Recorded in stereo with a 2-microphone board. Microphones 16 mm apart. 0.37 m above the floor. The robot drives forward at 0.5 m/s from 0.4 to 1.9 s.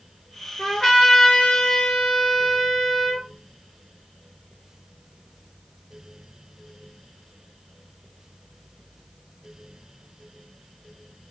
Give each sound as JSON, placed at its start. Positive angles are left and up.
{"t": 0.6, "sound": "a trumpet", "side_deg": 45, "distance_m": 3.5}